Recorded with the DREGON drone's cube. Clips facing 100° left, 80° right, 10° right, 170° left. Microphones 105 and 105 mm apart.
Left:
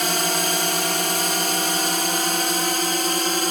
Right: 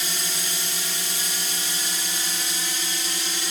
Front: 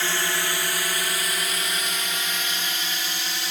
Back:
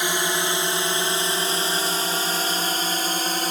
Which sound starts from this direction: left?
A drone, at 0.0 s.